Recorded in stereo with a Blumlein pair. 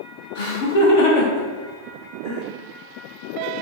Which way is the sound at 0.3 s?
50° left.